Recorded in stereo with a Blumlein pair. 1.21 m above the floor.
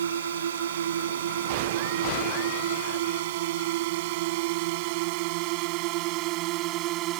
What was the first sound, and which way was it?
A drone, 65° right.